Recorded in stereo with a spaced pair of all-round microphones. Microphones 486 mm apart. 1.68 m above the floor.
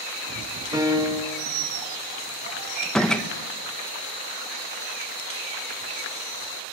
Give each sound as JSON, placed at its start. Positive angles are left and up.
{"t": 0.7, "sound": "a piano", "side_deg": -10, "distance_m": 3.0}
{"t": 2.8, "sound": "a door slam", "side_deg": 0, "distance_m": 1.4}